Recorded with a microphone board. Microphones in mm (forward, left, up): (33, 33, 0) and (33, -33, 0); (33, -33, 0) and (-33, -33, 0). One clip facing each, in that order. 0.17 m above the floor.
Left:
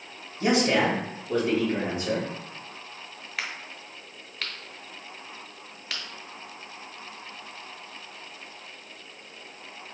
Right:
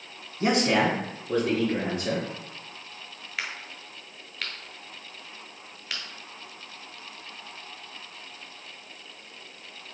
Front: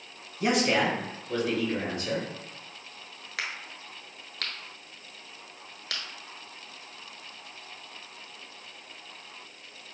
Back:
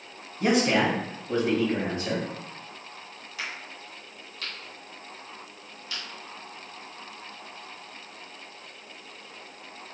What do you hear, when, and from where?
0.4 s a man speaking: 85° right, 1.3 m; by 2.2 s 125° right, 3 m
3.4 s a crack: 5° right, 1.1 m